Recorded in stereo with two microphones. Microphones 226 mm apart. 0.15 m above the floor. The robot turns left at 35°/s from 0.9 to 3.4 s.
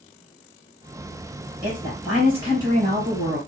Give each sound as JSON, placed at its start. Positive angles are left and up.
{"t": 1.6, "sound": "a woman speaking", "azimuth_deg": 15, "distance_m": 2.5}